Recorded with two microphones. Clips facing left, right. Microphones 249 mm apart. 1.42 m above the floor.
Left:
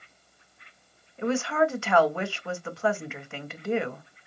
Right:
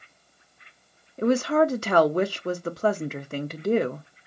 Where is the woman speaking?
40° right (ahead or behind), 0.7 m.